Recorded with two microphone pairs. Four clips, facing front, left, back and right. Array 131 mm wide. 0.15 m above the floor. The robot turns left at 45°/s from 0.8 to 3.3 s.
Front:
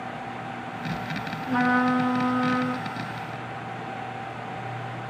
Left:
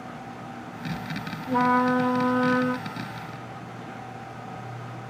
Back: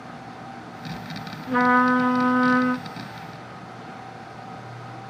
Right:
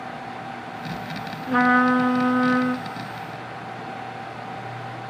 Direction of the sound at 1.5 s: 95° right.